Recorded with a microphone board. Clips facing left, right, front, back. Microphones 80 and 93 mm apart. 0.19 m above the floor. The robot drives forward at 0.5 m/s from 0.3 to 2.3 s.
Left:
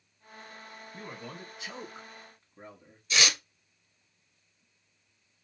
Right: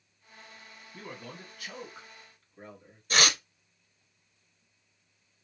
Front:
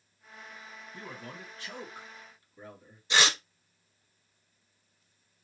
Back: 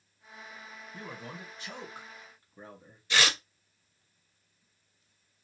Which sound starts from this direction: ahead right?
Tearing paper, at 3.1 s.